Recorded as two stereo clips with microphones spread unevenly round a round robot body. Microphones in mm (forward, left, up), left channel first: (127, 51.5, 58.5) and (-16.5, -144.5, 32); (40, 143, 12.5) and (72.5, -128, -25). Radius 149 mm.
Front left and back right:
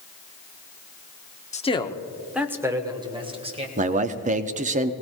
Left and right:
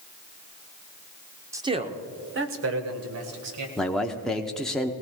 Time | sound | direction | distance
1.5 | a man speaking | 10° right | 1.1 m
3.8 | a man speaking | 170° right | 0.8 m